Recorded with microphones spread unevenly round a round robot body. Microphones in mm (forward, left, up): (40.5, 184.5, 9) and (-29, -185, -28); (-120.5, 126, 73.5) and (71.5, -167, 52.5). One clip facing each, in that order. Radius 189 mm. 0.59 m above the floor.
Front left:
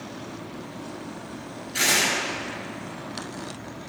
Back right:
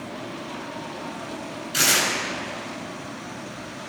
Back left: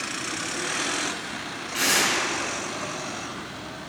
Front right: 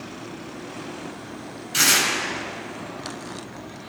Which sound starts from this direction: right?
Tearing paper, at 1.7 s.